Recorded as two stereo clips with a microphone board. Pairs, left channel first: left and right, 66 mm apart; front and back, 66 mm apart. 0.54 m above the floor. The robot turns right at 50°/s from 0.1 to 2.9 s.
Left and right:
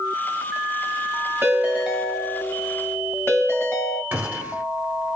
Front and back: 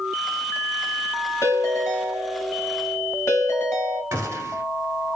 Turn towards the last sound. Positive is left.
turn(degrees=-150)